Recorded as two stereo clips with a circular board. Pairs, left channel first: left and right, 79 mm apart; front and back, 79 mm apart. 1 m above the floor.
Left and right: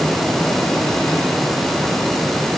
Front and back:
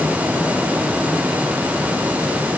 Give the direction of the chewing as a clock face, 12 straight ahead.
No chewing in this recording.